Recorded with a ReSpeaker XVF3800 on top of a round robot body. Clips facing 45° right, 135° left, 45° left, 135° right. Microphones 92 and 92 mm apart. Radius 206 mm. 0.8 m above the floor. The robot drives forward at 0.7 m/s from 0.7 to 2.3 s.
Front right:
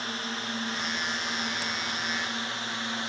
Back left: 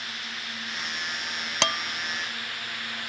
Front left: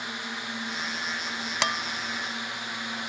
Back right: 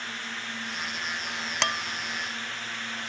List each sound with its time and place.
0.0 s a drone: 20° right; by 3.1 s 15° right
1.6 s dishes clattering: 130° left; by 3.1 s 135° left